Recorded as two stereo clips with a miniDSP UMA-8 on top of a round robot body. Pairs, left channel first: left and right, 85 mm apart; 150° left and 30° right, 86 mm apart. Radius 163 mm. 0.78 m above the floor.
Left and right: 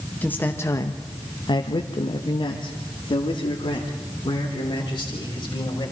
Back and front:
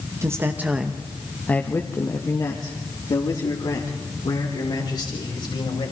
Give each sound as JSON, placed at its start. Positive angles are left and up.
{"t": 0.2, "sound": "a man speaking", "azimuth_deg": 20, "distance_m": 1.4}